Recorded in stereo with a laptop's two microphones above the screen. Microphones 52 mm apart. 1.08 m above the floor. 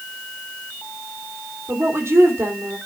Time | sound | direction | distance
1.7 | a woman speaking | 50° right (ahead or behind) | 2.5 m